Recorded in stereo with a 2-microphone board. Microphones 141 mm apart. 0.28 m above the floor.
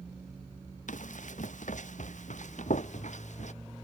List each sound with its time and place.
0.9 s running footsteps: 70° left (ahead or behind); by 3.5 s 65° left (ahead or behind)